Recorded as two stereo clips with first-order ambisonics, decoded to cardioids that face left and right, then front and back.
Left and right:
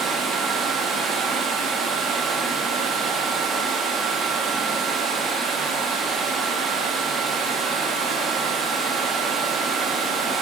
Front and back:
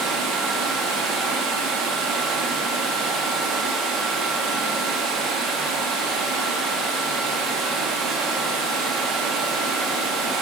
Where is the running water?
170° right, 1.2 m.